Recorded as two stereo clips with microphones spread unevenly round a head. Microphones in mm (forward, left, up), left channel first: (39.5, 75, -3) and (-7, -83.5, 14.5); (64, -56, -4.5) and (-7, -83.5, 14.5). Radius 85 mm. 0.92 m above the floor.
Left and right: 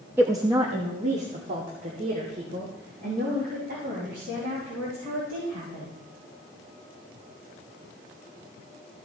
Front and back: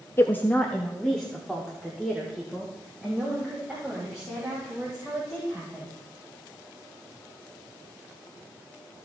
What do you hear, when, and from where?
0.2 s a woman speaking: 25° right, 1.0 m; by 5.9 s 80° right, 7.5 m